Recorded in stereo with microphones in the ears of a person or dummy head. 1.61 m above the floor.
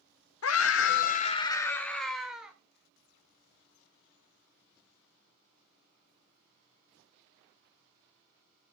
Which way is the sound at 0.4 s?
80° left.